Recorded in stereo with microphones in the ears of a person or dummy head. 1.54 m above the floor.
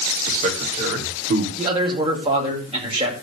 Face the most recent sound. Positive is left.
turn(degrees=-35)  # may be behind; listen again after turning